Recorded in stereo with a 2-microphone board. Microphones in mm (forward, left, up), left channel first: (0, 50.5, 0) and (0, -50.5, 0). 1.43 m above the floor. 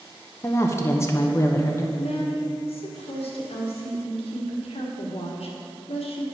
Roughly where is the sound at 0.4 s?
Left.